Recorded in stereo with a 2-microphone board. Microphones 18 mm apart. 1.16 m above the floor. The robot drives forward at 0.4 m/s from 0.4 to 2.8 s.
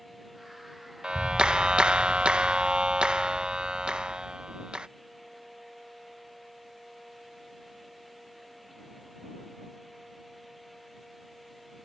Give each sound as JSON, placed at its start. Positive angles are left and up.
{"t": 1.0, "sound": "a clap", "side_deg": -55}